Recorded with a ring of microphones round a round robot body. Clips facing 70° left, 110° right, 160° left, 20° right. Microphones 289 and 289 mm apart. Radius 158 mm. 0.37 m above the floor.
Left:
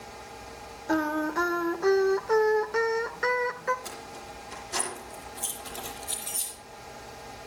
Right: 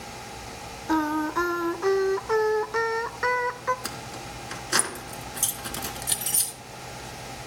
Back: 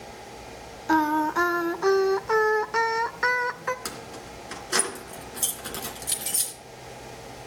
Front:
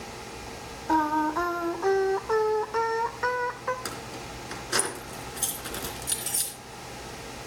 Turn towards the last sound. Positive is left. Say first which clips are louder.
# right 4 dB, even
turn(degrees=-115)